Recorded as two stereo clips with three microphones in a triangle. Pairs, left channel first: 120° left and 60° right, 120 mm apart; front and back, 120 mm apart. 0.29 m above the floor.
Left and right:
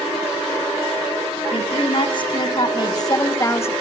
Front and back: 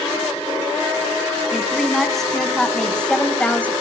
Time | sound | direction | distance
1.5 | a woman speaking | 90° left | 3 m